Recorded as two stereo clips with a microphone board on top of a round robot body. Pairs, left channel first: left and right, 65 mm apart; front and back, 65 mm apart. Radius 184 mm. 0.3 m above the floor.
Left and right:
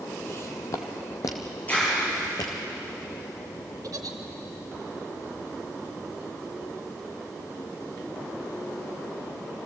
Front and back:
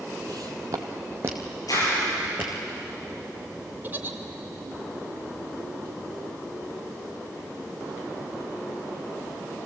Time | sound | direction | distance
0.3 | footsteps | 150° left | 0.6 m
1.7 | a clap | 25° left | 8.5 m
3.8 | a giggle | 120° right | 1.2 m